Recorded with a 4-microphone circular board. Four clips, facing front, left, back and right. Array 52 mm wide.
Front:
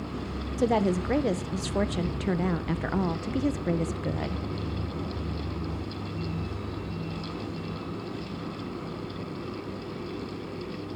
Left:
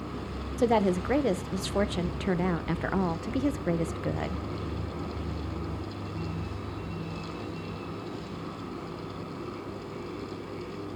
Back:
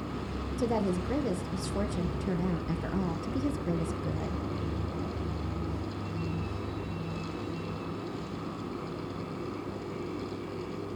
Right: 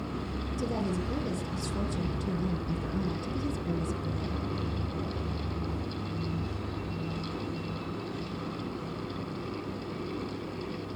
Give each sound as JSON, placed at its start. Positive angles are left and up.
{"t": 0.6, "sound": "a woman speaking", "azimuth_deg": 55, "distance_m": 0.9}